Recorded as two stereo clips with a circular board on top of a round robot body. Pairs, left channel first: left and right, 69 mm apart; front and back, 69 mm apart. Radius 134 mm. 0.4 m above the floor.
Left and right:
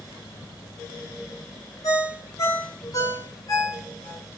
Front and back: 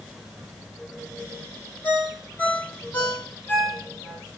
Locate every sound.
1.8 s a ringtone: 65° left, 1.7 m